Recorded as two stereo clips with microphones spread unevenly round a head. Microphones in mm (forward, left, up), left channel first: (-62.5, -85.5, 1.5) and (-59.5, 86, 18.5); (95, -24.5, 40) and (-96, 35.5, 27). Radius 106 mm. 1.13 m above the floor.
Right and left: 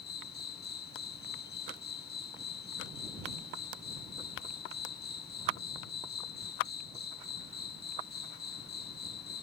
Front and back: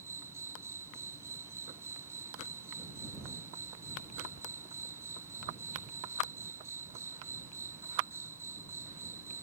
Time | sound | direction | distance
0.0 | an insect | 120° right | ?